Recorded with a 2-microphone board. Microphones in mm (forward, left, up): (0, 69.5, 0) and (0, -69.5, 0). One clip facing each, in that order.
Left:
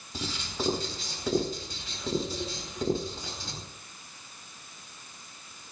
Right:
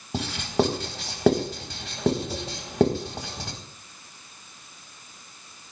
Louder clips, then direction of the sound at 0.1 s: Right 11 dB; 75° right (ahead or behind).